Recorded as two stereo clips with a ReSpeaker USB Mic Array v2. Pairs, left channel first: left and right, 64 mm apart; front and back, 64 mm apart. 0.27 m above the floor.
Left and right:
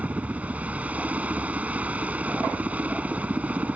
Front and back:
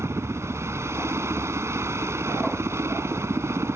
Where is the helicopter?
150° right.